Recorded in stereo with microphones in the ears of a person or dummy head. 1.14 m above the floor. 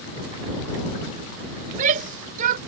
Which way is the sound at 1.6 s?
50° right (ahead or behind).